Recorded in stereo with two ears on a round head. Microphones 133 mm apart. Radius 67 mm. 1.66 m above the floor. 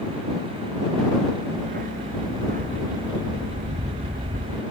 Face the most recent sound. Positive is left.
turn(degrees=-60)  # may be behind; listen again after turning